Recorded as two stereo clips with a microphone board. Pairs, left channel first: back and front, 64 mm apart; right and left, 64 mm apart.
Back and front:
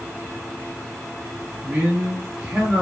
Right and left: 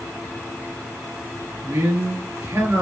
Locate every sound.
1.6 s a man speaking: 55° left, 1.6 m